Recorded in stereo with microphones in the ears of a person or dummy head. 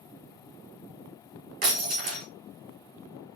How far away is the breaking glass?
About 1.5 m.